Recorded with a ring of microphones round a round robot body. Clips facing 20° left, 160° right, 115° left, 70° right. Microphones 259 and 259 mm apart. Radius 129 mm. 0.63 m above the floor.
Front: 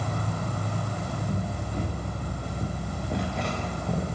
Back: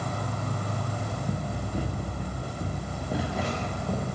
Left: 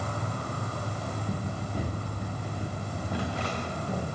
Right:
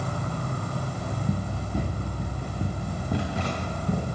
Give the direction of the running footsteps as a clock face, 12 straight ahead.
3 o'clock.